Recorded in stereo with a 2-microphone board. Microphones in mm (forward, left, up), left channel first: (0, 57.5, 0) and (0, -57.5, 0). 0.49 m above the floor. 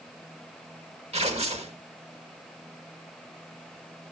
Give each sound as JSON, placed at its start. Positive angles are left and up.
{"t": 1.1, "sound": "tearing paper", "side_deg": -60, "distance_m": 1.1}